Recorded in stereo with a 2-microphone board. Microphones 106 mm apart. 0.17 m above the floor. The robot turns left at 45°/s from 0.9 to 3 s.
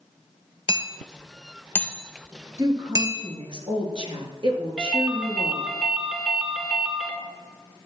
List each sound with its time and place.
0.7 s hammering: 55° left (ahead or behind), 1.1 m; by 3.2 s 35° right (ahead or behind), 1.1 m
2.6 s a woman speaking: 35° right (ahead or behind), 2.5 m; by 5.7 s 50° right (ahead or behind), 2.5 m
4.8 s a ringtone: 5° right (ahead or behind), 1.7 m